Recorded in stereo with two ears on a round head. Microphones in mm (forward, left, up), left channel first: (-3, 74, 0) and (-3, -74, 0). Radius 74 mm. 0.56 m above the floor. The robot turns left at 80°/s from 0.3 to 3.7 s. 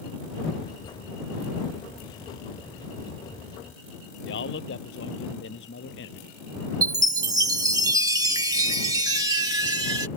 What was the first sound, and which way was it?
A man speaking, 85° left.